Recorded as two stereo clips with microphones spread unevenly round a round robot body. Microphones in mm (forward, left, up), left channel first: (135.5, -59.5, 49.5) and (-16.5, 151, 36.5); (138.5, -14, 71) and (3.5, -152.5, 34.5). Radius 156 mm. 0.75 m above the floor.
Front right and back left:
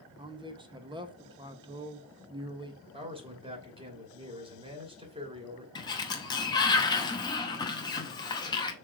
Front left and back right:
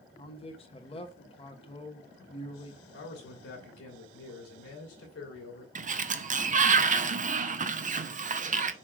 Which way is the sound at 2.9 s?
55° left.